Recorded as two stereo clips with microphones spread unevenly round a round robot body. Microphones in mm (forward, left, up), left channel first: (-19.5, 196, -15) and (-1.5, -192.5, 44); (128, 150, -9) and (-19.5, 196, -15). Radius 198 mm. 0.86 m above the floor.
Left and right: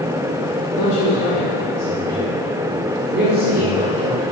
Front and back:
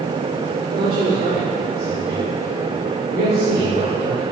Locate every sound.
0.8 s a man speaking: 140° left, 1.8 m; by 4.2 s 155° right, 3 m